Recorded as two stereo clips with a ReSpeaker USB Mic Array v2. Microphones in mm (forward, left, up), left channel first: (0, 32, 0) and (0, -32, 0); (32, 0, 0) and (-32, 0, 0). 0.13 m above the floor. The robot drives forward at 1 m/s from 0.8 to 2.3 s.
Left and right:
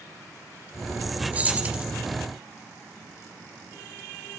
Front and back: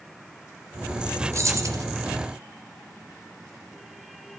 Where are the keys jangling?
155° right, 1.9 m; by 1.8 s 160° right, 2.5 m.